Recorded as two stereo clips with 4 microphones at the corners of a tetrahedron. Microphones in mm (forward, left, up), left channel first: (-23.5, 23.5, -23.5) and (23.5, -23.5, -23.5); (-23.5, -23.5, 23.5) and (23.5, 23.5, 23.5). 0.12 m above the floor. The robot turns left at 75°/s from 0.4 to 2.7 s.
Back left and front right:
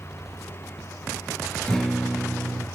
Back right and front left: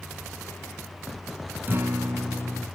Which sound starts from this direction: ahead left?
A guitar, at 1.7 s.